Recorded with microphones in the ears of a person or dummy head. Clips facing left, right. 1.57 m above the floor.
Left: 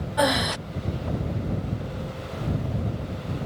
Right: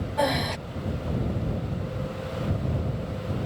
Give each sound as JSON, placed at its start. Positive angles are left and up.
{"t": 0.2, "sound": "breathing", "side_deg": 15}